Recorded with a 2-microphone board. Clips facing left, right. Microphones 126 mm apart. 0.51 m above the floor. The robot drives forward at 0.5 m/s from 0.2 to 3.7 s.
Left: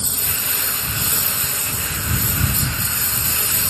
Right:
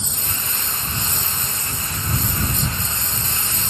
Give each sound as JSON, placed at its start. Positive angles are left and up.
{"t": 0.0, "sound": "a lawn mower", "side_deg": 75}